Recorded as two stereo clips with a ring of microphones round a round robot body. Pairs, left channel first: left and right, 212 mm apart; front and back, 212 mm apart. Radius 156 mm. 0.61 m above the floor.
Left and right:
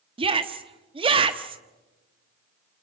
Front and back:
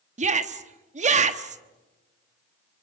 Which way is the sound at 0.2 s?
145° right.